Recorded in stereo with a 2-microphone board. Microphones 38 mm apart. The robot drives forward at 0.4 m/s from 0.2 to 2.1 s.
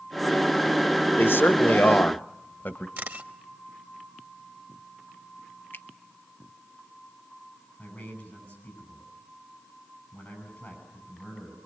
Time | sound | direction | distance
1.2 | a man speaking | 70° left (ahead or behind) | 1.0 m
3.0 | a camera shutter | 55° right (ahead or behind) | 1.3 m
5.7 | a finger snap | 65° left (ahead or behind) | 1.1 m
7.8 | a man speaking | 35° left (ahead or behind) | 9 m